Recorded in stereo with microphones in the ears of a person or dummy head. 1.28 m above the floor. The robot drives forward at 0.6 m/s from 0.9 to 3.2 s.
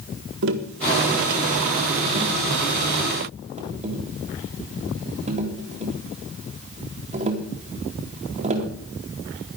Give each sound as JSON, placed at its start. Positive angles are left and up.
{"t": 0.4, "sound": "tapping", "side_deg": -65, "distance_m": 1.5}